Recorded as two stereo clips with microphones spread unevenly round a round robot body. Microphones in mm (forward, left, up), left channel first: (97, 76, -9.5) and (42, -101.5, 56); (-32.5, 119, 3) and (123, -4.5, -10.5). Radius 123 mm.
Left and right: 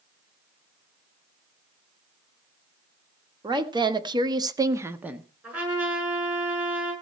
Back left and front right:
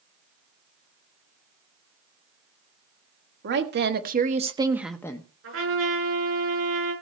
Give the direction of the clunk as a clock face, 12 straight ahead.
No clunk in this recording.